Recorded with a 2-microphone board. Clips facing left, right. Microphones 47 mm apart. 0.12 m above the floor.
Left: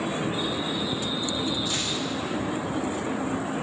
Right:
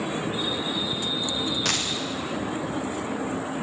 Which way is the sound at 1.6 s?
80° right.